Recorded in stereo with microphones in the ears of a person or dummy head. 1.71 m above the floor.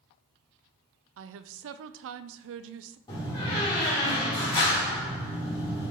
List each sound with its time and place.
1.2 s a woman speaking: 75° right (ahead or behind), 0.5 m
3.1 s a door slam: 20° left (ahead or behind), 3.5 m